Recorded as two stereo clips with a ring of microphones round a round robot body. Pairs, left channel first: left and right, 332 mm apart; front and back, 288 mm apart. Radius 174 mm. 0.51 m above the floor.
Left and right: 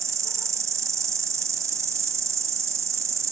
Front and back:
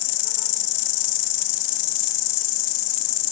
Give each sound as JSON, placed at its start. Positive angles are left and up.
{"t": 0.0, "sound": "an insect", "azimuth_deg": -10, "distance_m": 0.7}